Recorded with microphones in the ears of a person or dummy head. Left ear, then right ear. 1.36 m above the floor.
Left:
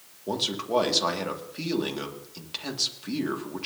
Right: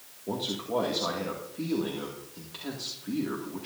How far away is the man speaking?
About 2 m.